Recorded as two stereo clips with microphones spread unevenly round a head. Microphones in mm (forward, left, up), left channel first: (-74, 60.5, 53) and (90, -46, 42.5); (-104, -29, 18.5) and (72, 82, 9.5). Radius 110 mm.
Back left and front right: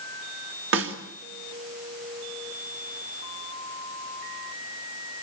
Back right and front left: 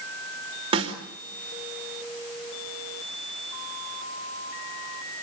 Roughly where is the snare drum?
Ahead right.